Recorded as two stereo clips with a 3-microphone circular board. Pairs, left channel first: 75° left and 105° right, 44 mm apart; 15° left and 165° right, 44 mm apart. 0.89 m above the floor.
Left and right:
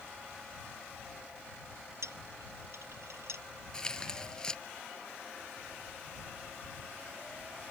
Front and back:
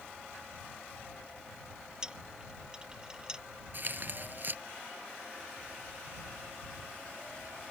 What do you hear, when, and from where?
2.0 s a dropped coin: 90° right
3.7 s tearing paper: 150° left